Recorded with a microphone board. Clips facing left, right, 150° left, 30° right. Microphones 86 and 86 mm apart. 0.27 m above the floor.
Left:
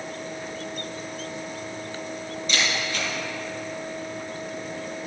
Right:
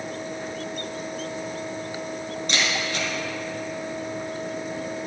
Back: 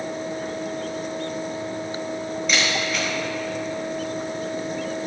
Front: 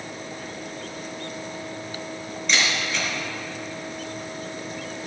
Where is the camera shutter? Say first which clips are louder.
Even, even; 125° right, 3 m.